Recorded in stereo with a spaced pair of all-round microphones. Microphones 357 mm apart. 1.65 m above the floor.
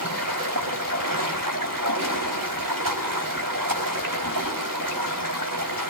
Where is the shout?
I don't hear a shout.